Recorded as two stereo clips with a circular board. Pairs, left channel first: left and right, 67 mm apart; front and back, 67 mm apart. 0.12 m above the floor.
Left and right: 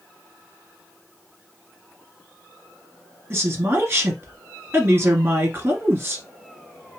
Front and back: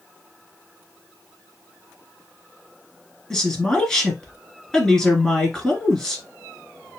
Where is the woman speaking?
75° right, 1.6 m.